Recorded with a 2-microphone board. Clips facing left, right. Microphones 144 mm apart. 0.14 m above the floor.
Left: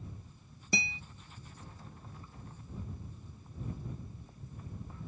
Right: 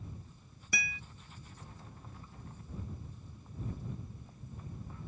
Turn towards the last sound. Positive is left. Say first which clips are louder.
# left 5 dB
turn(degrees=25)  # may be behind; listen again after turning